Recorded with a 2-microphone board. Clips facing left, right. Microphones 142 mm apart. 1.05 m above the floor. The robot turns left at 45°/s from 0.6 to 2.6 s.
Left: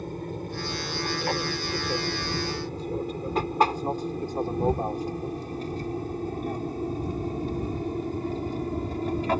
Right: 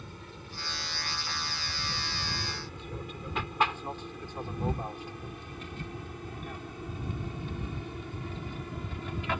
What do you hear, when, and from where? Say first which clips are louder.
0.0 s an aircraft: left 13 dB; 45° left (ahead or behind); by 9.4 s 40° left (ahead or behind)